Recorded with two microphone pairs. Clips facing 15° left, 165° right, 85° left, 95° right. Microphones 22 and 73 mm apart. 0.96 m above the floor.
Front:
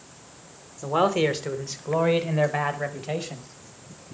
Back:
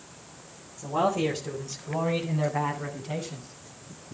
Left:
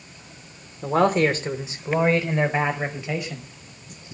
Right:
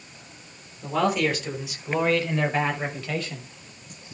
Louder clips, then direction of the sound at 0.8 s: Front 4 dB, left 4 dB; 40° left.